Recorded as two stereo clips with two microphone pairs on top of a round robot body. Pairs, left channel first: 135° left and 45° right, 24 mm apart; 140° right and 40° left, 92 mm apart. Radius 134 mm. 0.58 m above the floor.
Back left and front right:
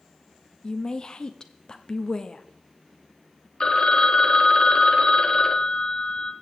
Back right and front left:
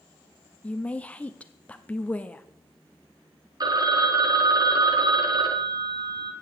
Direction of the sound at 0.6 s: 150° left.